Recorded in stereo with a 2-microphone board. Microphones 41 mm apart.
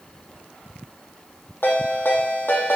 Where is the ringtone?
70° left (ahead or behind), 3 m.